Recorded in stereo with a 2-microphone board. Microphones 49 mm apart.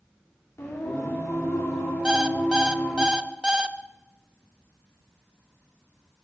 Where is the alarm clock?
15° right (ahead or behind), 0.7 m.